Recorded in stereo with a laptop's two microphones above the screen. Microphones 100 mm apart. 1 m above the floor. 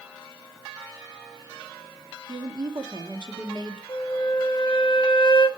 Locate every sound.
2.3 s a woman speaking: 50° right (ahead or behind), 1.4 m
3.9 s a flute: 50° left (ahead or behind), 1.0 m